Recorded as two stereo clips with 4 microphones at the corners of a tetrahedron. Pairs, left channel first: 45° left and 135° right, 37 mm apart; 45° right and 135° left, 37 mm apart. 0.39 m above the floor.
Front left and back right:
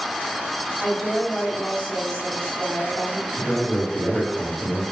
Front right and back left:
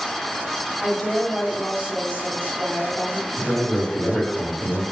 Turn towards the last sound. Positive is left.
turn(degrees=125)